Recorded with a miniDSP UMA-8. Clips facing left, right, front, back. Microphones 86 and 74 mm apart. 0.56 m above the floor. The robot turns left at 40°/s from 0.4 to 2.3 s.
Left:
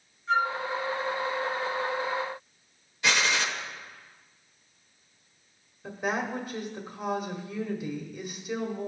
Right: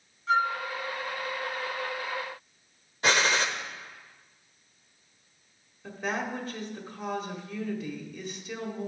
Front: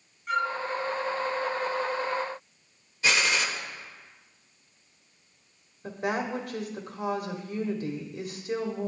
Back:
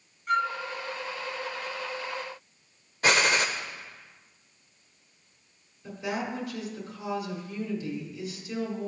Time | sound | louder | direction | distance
0.3 | a flute | right 1 dB, back 1 dB | 90° right | 2.5 m
3.0 | a gunshot | right 2 dB, back 2 dB | 140° right | 1.0 m
5.8 | a woman speaking | left 2 dB, front 3 dB | 15° left | 1.7 m